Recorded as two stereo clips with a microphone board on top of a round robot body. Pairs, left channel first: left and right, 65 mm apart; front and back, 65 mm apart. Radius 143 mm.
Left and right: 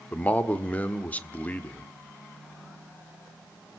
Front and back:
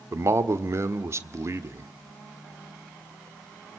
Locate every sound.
0.1 s a man speaking: 150° left, 1.6 m